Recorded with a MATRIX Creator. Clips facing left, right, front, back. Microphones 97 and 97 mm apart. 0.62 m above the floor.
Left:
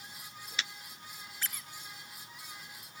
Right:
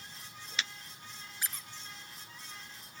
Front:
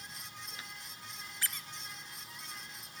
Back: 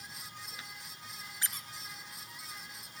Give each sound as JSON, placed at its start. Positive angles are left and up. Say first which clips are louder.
{"t": 1.4, "sound": "a squeak", "louder": "even, even", "azimuth_deg": -145, "distance_m": 0.6}